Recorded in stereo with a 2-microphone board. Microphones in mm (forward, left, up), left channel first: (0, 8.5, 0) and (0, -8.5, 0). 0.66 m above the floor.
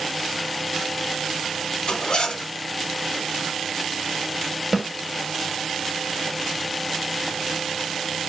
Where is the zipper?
70° left (ahead or behind), 1.2 m.